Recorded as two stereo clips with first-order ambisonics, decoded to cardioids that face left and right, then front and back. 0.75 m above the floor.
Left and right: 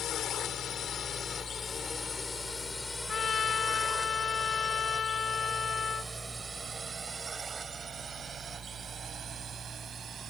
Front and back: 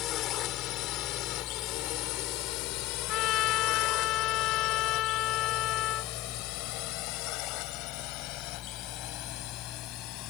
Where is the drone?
40° left; by 10.3 s 30° right.